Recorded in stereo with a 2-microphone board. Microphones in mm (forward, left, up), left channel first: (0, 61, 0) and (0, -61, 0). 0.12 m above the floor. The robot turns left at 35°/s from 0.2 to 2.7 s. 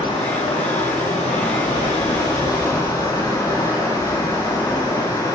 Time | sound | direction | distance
0.0 | running water | 120° left | 4.5 m